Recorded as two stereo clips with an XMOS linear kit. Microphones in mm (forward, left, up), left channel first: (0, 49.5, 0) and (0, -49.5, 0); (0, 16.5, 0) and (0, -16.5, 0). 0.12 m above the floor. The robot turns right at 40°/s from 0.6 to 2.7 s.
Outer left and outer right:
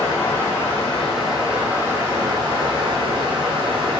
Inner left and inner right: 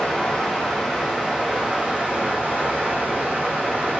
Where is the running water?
160° left, 1.5 m; by 4.0 s 120° right, 1.5 m.